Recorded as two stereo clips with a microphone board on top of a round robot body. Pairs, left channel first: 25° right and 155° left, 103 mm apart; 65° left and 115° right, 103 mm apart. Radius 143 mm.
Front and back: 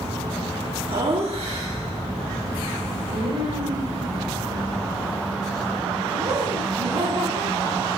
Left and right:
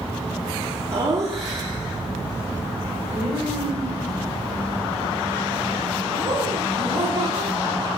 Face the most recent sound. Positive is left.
turn(degrees=-160)